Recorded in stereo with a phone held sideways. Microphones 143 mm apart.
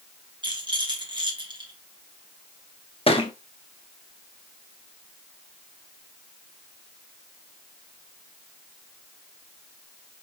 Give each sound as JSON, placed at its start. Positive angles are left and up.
{"t": 0.4, "sound": "a rattle", "side_deg": -35, "distance_m": 1.3}
{"t": 3.1, "sound": "a thud", "side_deg": 40, "distance_m": 0.8}